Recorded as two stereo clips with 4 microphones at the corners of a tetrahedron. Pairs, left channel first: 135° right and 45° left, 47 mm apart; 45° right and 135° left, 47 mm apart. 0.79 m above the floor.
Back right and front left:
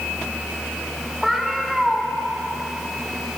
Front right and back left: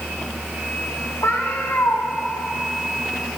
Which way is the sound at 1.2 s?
40° right.